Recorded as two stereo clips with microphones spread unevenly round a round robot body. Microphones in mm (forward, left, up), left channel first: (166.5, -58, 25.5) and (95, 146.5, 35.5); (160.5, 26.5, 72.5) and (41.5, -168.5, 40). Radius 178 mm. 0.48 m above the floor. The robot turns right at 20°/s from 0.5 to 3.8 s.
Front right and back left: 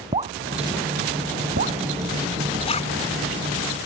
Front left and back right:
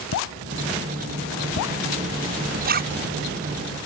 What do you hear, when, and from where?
0.1 s dripping: 45° left; by 1.8 s 70° left
2.6 s a zipper: 125° right; by 3.0 s 120° right